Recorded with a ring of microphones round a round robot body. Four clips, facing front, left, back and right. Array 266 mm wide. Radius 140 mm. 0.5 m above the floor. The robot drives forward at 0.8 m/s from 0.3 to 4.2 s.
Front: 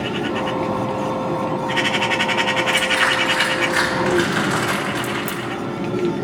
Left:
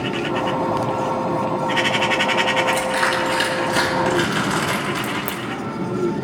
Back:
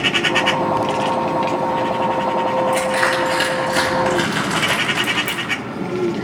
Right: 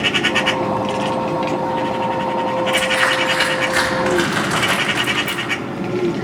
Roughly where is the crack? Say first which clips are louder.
Right 3 dB, back 1 dB; left.